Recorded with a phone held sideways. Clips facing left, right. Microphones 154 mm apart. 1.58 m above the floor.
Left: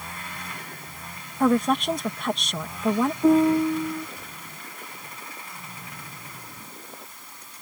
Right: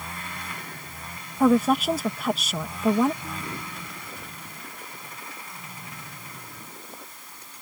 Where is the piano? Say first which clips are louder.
Left 19 dB; 75° left (ahead or behind).